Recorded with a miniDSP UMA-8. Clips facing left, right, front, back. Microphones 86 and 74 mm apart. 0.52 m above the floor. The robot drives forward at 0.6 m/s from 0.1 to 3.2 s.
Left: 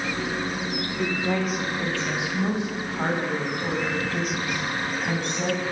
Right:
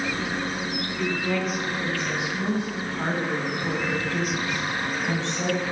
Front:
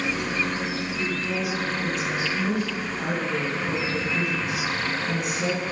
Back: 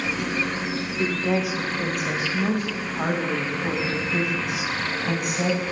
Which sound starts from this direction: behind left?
A woman speaking, at 1.0 s.